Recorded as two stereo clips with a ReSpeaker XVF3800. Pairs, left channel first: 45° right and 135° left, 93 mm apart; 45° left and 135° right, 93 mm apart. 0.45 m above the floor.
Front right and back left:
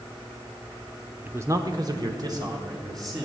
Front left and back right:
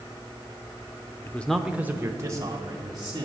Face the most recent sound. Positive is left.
turn(degrees=180)